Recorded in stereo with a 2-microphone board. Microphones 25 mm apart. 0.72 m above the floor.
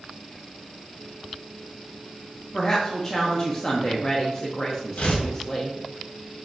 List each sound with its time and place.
2.5 s a woman speaking: 15° left (ahead or behind), 0.7 m
5.0 s tearing paper: 70° left (ahead or behind), 1.2 m